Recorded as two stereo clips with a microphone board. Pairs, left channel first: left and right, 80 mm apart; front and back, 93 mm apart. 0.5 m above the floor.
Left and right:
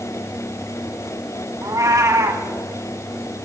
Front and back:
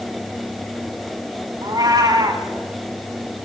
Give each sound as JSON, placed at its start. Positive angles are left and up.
{"t": 1.6, "sound": "a cat meowing", "azimuth_deg": -135, "distance_m": 2.5}